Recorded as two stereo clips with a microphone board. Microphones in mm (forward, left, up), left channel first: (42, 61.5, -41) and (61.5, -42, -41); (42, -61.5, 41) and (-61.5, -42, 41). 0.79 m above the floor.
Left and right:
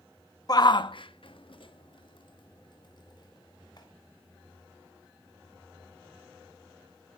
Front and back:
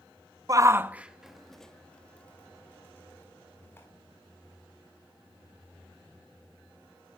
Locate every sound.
0.5 s a shout: 130° left, 0.6 m; by 3.9 s 55° left, 2.5 m